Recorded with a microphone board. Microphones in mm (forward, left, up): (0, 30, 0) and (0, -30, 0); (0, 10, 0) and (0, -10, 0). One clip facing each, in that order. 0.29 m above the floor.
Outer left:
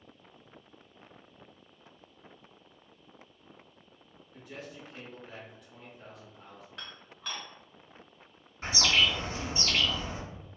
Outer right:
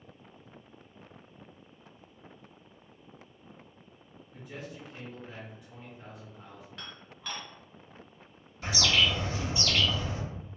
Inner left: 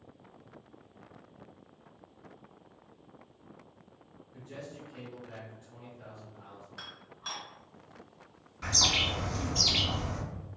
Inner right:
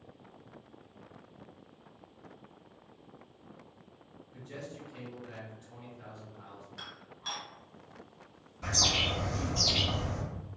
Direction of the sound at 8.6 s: 35° left (ahead or behind).